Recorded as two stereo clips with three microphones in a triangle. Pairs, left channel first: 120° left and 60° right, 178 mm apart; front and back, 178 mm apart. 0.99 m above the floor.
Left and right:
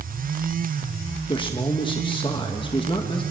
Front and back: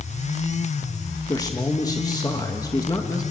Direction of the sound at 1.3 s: 65° left.